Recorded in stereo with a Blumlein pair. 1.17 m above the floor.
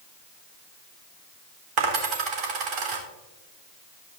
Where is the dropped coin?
40° right, 1.8 m.